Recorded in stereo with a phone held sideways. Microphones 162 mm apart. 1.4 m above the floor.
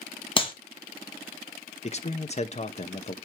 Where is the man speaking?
45° left (ahead or behind), 0.9 m.